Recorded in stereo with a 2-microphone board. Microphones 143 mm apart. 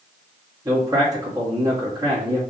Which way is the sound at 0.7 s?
25° right (ahead or behind).